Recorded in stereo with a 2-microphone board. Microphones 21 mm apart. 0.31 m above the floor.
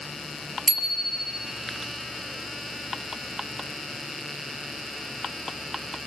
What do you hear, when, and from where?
0.7 s a bicycle bell: 10° left (ahead or behind), 5 m